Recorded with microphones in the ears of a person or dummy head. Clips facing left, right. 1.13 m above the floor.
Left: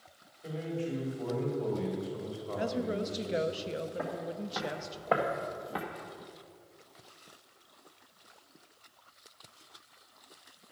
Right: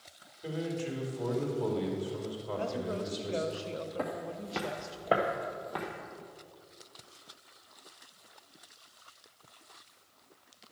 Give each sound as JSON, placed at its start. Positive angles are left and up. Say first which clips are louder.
{"t": 0.4, "sound": "a man speaking", "louder": "right 1 dB", "side_deg": -60, "distance_m": 3.0}
{"t": 2.6, "sound": "a woman speaking", "louder": "left 3 dB", "side_deg": 20, "distance_m": 0.6}
{"t": 4.0, "sound": "footsteps", "louder": "even", "side_deg": -50, "distance_m": 1.7}